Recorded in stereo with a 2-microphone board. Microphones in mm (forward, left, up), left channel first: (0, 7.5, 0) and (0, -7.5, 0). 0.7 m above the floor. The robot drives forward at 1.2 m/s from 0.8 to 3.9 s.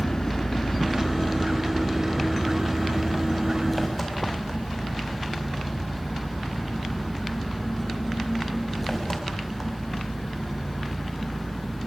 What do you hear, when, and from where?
0.0 s an engine running: 40° left (ahead or behind), 1.5 m; by 11.9 s 15° left (ahead or behind), 5 m